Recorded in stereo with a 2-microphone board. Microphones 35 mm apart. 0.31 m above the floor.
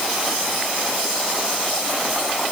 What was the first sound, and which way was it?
Only background noise.